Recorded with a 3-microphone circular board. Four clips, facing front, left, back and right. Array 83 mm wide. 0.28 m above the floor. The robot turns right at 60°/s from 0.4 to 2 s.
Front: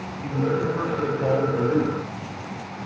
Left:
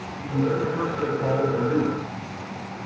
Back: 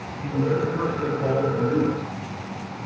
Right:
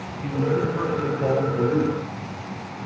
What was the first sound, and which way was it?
A man speaking, 105° right.